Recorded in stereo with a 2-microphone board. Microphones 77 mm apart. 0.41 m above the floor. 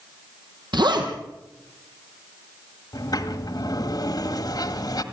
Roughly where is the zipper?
Right.